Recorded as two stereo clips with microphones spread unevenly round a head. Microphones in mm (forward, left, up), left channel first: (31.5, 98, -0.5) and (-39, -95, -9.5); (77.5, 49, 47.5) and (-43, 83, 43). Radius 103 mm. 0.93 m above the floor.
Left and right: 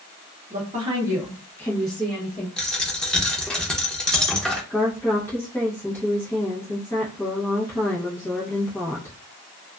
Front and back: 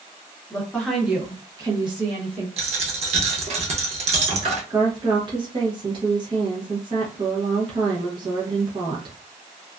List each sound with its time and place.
0.5 s a woman speaking: 85° right, 0.9 m; by 2.5 s 130° left, 1.3 m
2.6 s a dropped coin: 150° left, 0.6 m
4.7 s a woman speaking: 150° left, 0.8 m